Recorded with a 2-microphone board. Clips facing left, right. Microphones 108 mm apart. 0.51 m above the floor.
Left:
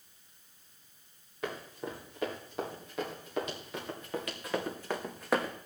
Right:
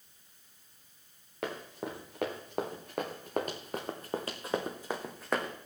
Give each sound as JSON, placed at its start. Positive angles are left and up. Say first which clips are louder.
{"t": 1.4, "sound": "running footsteps", "louder": "right 1 dB", "side_deg": -75, "distance_m": 4.5}